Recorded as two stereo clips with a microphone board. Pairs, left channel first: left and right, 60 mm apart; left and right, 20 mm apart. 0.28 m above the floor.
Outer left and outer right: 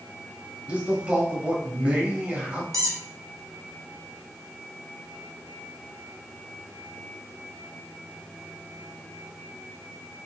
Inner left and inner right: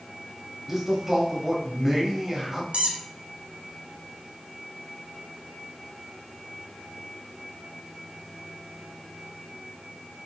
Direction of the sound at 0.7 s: 20° right (ahead or behind).